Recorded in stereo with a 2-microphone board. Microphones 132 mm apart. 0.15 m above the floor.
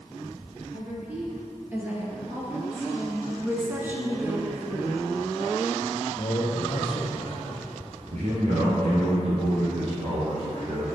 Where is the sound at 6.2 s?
40° left (ahead or behind), 2.5 m.